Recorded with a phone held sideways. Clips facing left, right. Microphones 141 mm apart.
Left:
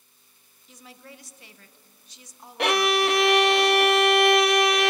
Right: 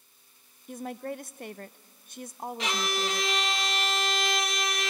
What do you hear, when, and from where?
0.7 s a woman speaking: 55° right (ahead or behind), 0.5 m
2.6 s a violin: 65° left (ahead or behind), 0.7 m